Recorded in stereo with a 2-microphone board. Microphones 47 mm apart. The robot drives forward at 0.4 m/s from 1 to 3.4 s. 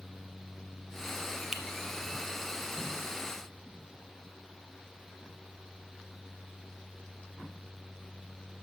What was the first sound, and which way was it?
A finger snap, 10° right (ahead or behind).